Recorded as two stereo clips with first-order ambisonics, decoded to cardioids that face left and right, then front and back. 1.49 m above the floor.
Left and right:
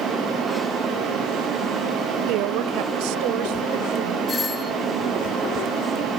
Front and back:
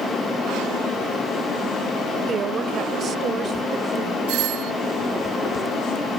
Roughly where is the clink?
No clink in this recording.